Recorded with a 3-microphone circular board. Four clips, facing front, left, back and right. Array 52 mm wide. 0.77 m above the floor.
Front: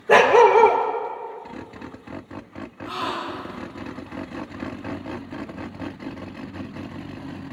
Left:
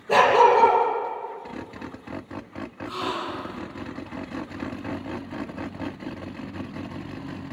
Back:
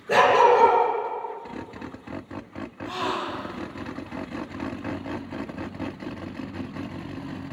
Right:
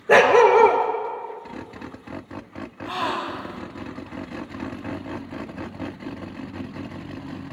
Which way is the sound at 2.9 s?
95° right.